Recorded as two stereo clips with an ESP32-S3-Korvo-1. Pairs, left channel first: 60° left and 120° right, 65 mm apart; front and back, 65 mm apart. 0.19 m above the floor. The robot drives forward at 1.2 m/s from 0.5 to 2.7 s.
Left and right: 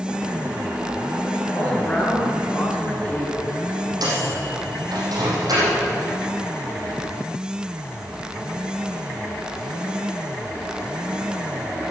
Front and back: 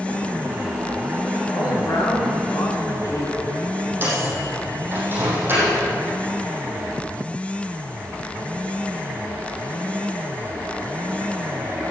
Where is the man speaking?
5° right, 4 m; by 3.4 s 10° right, 3 m.